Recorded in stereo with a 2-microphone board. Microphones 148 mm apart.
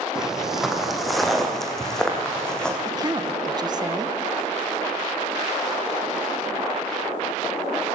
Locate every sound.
0.1 s footsteps: 5° right (ahead or behind), 3 m; by 2.8 s 5° left (ahead or behind), 4 m
2.9 s a woman speaking: 30° right (ahead or behind), 1.2 m